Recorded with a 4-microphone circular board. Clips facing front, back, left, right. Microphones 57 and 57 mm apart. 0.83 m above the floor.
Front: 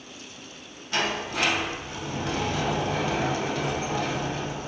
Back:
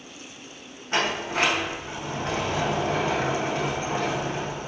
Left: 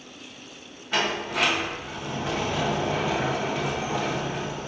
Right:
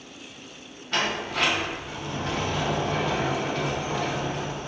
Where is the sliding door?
165° left, 0.7 m.